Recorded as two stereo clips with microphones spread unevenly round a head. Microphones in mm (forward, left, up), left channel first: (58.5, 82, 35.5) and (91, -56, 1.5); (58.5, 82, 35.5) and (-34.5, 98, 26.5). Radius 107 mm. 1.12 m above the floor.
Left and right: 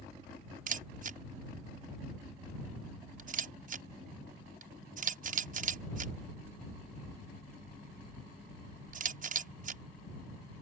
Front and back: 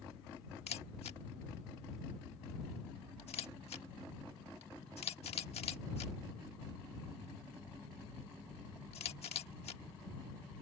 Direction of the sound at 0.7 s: 55° right.